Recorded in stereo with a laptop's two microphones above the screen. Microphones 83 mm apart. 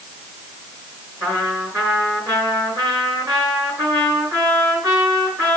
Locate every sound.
1.2 s a trumpet: 40° right (ahead or behind), 6 m